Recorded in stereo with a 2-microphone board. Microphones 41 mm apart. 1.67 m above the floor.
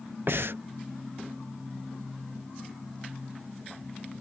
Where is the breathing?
65° right (ahead or behind).